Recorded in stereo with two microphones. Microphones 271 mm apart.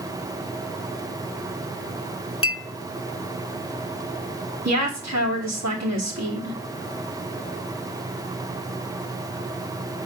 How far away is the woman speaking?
About 2.5 m.